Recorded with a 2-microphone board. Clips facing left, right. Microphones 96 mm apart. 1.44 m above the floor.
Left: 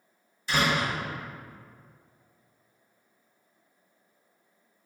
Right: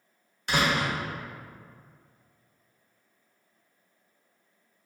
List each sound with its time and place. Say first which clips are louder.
0.5 s a door slam: even; 60° right (ahead or behind), 1.1 m